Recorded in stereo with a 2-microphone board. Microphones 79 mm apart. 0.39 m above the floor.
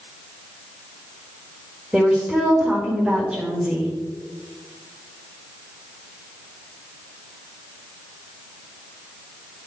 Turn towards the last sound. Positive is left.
turn(degrees=-5)  # may be behind; listen again after turning